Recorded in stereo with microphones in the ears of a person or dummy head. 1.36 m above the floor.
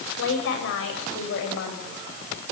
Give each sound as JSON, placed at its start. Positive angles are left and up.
{"t": 0.2, "sound": "a woman speaking", "side_deg": 75, "distance_m": 7.5}